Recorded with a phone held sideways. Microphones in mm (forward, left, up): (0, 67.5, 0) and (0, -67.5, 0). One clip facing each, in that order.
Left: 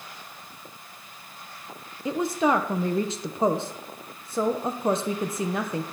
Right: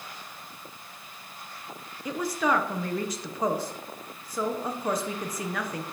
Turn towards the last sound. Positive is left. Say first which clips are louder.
# left 4 dB
turn(degrees=30)  # may be behind; listen again after turning